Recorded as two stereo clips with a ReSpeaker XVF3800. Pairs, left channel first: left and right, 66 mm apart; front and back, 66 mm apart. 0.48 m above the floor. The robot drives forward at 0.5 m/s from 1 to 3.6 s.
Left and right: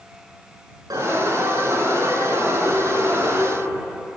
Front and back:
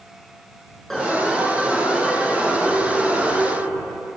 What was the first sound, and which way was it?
An alarm, 85° right.